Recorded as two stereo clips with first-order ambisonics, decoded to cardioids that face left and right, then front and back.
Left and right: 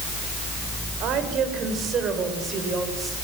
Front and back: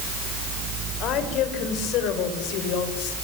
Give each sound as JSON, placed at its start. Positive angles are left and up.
{"t": 1.0, "sound": "a woman speaking", "azimuth_deg": -45, "distance_m": 4.0}